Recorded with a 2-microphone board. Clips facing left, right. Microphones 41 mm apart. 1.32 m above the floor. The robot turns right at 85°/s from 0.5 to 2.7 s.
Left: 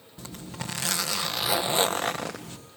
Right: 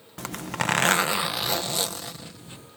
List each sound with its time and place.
0.2 s a zipper: 80° right; by 2.6 s 95° left